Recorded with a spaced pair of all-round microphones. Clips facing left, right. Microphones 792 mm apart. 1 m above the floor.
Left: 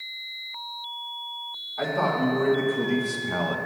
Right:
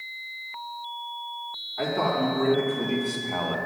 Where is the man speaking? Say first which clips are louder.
Even; 15° left (ahead or behind), 2.0 m; by 3.6 s 50° left (ahead or behind), 0.9 m.